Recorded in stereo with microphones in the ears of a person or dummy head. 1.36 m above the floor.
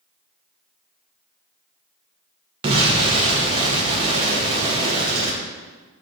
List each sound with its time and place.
2.6 s an explosion: 30° right (ahead or behind), 0.6 m